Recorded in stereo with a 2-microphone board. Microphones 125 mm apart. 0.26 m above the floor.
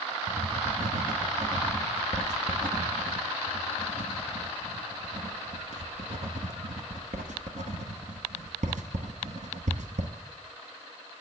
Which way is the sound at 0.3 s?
75° right (ahead or behind).